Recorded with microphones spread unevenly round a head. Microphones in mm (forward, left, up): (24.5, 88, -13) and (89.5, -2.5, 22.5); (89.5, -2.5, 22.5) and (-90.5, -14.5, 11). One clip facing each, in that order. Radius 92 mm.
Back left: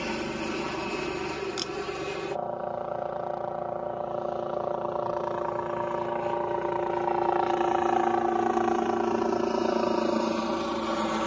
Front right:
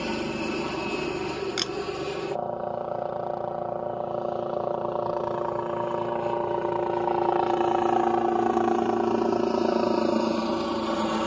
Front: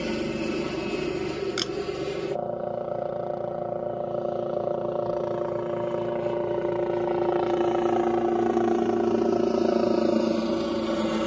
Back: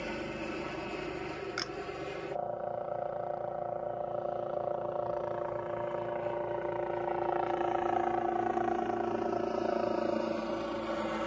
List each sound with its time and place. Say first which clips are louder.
0.0 s a helicopter: front right 2 dB, front 10 dB; 20° left
1.6 s a camera shutter: front right 2 dB, front 10 dB; 45° right